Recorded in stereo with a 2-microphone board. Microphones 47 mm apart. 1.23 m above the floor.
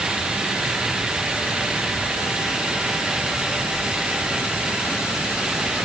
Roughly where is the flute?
I don't hear a flute.